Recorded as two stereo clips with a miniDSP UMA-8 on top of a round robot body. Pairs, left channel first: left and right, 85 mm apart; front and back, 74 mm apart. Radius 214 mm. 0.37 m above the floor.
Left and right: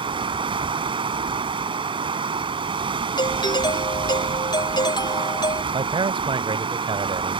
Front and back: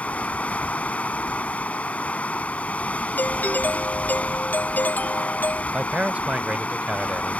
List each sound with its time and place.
0.0 s running water: 75° right
3.2 s a doorbell: 65° left
5.7 s a man speaking: 105° right